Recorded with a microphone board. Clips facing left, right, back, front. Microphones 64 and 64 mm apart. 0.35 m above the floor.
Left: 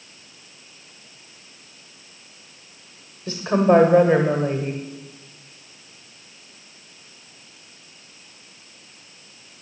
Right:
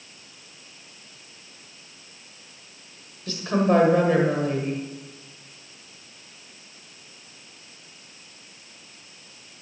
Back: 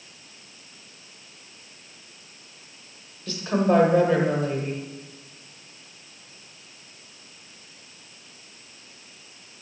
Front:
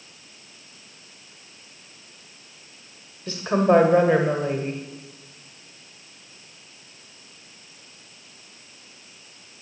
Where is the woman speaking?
40° left, 1.3 m.